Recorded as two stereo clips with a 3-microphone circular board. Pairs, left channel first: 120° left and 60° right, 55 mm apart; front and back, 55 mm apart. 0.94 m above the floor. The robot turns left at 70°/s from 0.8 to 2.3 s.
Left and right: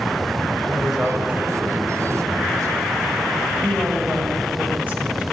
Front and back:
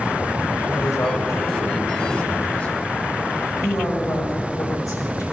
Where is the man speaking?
35° left, 4 m; by 2.7 s 70° right, 4 m.